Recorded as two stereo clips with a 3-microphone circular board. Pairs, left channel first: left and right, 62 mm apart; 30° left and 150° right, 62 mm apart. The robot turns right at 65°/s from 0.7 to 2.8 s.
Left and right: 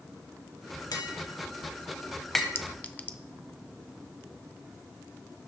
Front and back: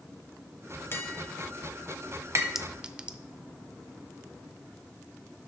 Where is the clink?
130° left, 0.5 m; by 3.2 s 145° left, 0.5 m.